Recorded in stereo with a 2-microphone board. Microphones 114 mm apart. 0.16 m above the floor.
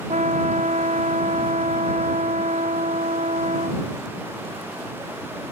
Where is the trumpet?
70° right (ahead or behind).